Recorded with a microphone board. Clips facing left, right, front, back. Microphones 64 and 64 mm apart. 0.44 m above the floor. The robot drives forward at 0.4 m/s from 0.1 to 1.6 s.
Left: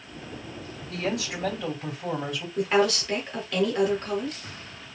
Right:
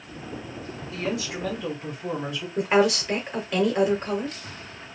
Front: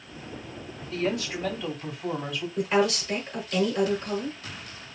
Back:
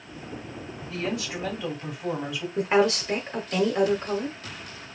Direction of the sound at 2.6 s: 150° right.